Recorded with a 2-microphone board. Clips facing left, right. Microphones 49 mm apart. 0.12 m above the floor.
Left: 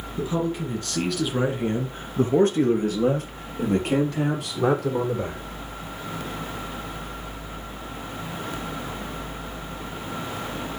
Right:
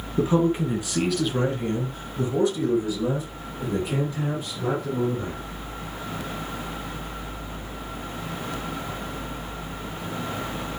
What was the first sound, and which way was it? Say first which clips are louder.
A man speaking: right 5 dB; 40° right (ahead or behind).